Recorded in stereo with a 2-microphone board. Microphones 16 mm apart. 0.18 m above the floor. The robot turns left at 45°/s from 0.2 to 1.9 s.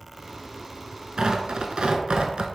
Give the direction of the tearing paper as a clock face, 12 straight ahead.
2 o'clock.